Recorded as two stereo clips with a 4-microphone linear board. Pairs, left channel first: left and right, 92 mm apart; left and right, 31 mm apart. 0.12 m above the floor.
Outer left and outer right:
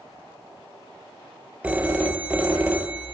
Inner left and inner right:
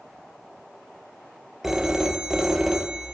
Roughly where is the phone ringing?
Centre.